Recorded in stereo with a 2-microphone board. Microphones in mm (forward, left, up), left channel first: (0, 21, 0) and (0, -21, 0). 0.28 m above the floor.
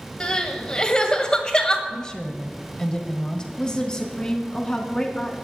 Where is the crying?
25° left (ahead or behind), 1.4 m.